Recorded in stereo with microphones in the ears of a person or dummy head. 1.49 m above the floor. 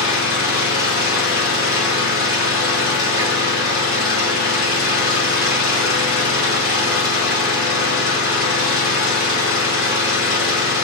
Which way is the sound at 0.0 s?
45° left (ahead or behind).